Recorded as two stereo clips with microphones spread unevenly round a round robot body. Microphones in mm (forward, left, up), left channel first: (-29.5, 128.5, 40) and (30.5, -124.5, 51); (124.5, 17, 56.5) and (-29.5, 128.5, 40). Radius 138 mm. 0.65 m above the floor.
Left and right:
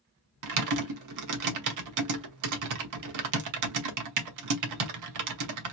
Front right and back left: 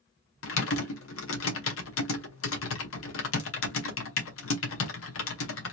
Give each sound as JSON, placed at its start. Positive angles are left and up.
{"t": 0.4, "sound": "typing on a keyboard", "azimuth_deg": -60, "distance_m": 1.0}